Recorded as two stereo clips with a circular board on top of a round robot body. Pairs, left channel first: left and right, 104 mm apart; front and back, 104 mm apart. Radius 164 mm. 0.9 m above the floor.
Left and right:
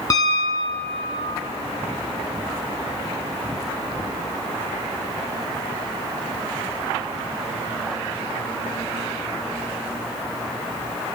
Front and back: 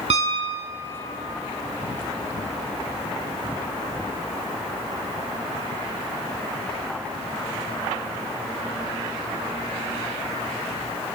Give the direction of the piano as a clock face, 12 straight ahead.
7 o'clock.